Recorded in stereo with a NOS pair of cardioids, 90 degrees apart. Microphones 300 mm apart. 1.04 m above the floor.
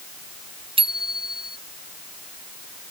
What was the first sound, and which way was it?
A bicycle bell, 15° right.